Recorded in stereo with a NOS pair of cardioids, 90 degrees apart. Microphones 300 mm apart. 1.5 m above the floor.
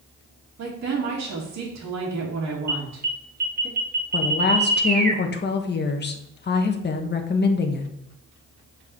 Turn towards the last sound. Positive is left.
turn(degrees=35)